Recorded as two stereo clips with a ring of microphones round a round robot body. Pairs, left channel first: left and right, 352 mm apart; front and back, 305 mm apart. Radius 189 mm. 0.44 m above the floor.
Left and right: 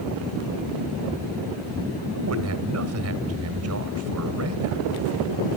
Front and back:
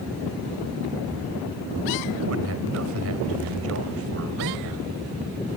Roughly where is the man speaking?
Behind right.